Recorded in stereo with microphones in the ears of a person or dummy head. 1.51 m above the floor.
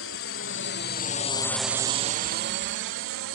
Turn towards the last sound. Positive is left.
turn(degrees=-70)  # may be behind; listen again after turning